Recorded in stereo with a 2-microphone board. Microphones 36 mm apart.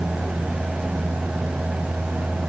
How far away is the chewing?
I don't hear chewing.